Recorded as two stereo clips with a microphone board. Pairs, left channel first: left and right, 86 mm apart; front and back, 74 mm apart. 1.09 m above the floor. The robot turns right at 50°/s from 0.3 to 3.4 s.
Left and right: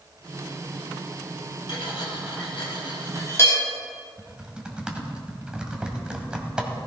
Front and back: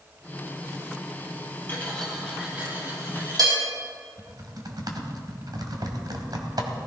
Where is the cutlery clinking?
65° left, 4 m; by 3.6 s 150° left, 4 m.